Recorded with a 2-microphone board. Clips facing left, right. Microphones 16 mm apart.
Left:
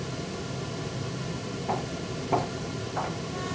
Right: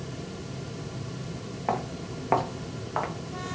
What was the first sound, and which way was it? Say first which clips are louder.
Footsteps: right 2 dB; 70° right (ahead or behind).